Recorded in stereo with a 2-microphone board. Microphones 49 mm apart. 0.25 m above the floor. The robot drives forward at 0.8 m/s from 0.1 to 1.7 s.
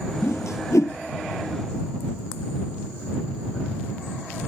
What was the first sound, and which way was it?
A whoosh, 70° left (ahead or behind).